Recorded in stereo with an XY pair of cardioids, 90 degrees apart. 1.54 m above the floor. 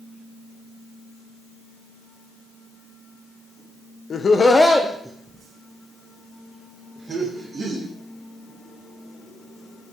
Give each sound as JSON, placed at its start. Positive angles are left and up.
{"t": 4.1, "sound": "laughter", "azimuth_deg": 60, "distance_m": 0.7}